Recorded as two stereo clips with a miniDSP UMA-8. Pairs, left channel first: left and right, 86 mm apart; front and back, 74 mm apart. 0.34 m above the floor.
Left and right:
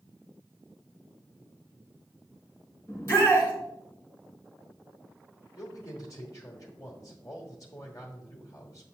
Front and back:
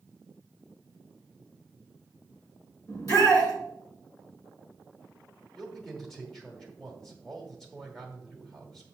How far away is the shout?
About 3 m.